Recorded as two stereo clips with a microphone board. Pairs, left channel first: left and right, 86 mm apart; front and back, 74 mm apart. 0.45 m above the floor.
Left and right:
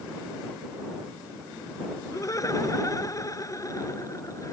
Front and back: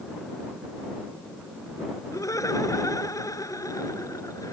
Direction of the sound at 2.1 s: 40° left.